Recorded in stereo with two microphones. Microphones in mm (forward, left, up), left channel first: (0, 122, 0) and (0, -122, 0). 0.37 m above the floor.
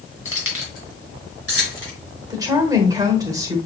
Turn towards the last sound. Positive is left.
turn(degrees=-15)  # may be behind; listen again after turning